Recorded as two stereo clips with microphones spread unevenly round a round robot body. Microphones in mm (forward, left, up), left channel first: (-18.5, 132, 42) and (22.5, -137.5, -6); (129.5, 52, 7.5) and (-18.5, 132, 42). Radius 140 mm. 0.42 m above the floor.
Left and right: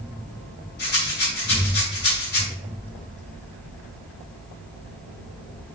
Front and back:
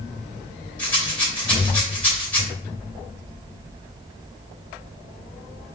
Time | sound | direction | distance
0.8 | a rattle | 45° left | 2 m